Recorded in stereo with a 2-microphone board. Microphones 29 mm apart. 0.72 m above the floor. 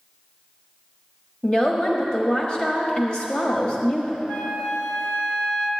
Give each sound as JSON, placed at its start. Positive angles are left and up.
{"t": 1.4, "sound": "a woman speaking", "side_deg": 25, "distance_m": 1.0}
{"t": 4.3, "sound": "a flute", "side_deg": 70, "distance_m": 0.9}